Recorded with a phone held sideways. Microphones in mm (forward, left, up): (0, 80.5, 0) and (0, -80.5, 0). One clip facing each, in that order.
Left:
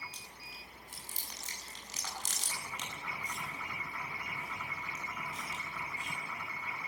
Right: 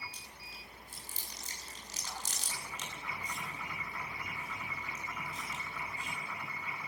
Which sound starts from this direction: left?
Chewing, at 0.1 s.